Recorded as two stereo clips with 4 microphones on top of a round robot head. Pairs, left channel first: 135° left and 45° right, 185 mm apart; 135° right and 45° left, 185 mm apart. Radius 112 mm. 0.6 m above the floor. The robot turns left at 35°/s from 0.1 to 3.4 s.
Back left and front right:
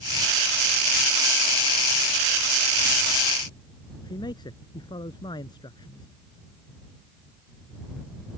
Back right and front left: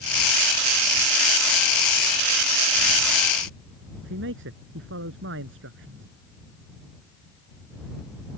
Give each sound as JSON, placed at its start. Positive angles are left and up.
{"t": 4.0, "sound": "a man speaking", "azimuth_deg": 65}